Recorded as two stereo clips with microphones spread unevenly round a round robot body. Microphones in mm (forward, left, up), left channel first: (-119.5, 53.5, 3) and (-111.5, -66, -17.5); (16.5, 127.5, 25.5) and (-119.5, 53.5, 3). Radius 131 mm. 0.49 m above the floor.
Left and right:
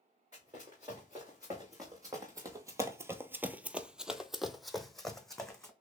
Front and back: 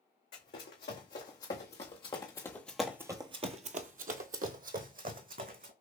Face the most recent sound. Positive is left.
turn(degrees=175)